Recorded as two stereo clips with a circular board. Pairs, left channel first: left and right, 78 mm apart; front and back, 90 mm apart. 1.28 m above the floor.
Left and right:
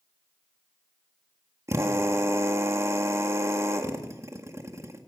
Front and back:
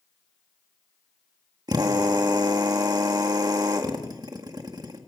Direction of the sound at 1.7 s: 140° right.